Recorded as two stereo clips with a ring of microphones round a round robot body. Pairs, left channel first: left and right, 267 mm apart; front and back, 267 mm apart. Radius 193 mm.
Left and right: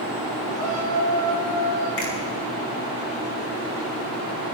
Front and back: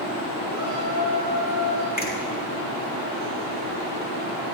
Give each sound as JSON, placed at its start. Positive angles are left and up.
{"t": 0.5, "sound": "a shout", "azimuth_deg": 35, "distance_m": 8.0}
{"t": 2.0, "sound": "a finger snap", "azimuth_deg": 55, "distance_m": 6.0}